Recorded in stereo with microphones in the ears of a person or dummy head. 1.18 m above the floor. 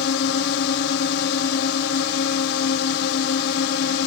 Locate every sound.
0.0 s a drone: 65° left (ahead or behind)